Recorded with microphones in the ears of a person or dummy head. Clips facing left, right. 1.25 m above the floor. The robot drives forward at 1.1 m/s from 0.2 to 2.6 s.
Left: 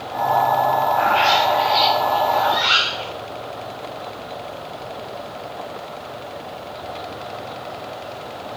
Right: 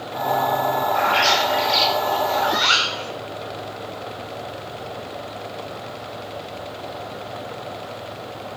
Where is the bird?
75° right (ahead or behind), 3 m; by 3.1 s 70° right (ahead or behind), 3.5 m.